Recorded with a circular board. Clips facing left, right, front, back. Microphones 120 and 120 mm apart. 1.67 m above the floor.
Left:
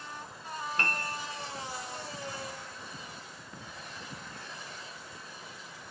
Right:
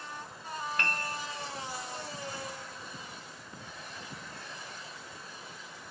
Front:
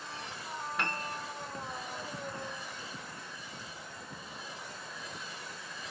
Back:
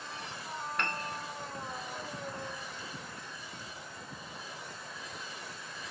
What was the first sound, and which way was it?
A piano, 85° left.